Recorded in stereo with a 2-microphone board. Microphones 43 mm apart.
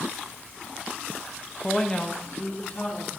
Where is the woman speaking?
5° left (ahead or behind), 0.5 m; by 3.1 s 40° left (ahead or behind), 2 m.